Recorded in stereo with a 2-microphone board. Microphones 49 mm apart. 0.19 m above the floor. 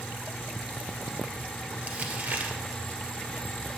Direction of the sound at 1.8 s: 30° right (ahead or behind).